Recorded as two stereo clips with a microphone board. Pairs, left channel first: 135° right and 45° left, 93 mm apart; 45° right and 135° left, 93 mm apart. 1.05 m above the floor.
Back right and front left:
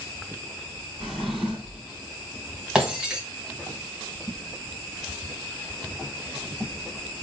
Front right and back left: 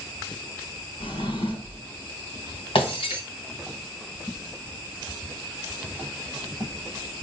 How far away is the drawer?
About 3 m.